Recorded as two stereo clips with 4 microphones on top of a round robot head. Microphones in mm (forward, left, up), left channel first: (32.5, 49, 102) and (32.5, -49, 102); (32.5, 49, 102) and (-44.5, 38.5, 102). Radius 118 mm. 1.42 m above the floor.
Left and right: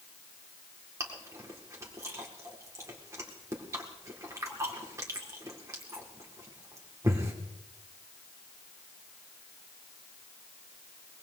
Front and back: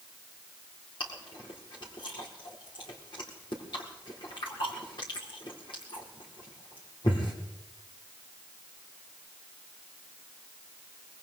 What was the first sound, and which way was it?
Chewing, 30° right.